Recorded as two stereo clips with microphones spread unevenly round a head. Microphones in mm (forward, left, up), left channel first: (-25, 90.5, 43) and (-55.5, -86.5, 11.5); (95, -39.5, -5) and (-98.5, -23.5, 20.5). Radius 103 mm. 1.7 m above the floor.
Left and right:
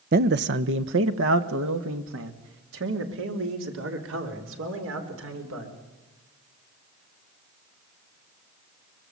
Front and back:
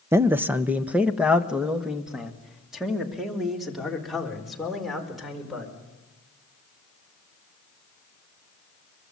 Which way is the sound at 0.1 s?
125° right.